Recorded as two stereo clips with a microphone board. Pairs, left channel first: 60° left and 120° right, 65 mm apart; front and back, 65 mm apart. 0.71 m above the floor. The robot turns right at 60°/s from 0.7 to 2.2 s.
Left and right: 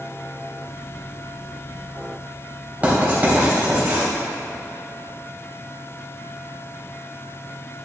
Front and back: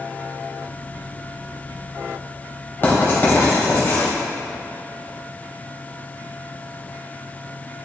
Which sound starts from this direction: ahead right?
Writing, at 2.8 s.